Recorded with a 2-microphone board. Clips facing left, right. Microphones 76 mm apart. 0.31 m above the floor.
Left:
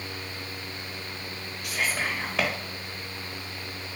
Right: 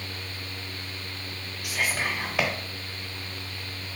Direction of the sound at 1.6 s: 5° right (ahead or behind).